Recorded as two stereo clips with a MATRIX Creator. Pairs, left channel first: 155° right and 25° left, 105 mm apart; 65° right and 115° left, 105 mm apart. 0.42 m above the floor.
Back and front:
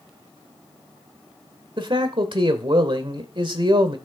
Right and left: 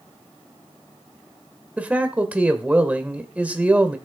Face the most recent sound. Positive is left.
turn(degrees=40)